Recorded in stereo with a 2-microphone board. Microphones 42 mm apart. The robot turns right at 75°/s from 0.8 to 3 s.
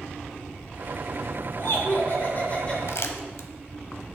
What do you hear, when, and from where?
1.6 s laughter: 65° left, 2.0 m; by 2.8 s 160° left, 2.0 m
2.9 s crumpling: 75° left (ahead or behind), 0.7 m; by 3.5 s 70° left (ahead or behind), 0.7 m